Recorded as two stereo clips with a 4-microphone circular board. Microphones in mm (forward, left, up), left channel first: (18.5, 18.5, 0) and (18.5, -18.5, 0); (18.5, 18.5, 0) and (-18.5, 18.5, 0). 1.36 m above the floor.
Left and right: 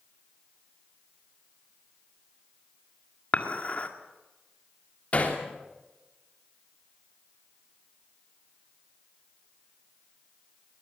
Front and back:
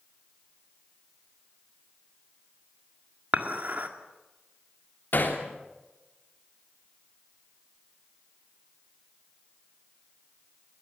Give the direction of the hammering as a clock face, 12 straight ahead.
11 o'clock.